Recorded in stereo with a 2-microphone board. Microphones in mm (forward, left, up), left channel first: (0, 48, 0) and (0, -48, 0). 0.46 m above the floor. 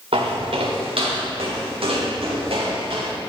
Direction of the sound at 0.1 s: 80° right.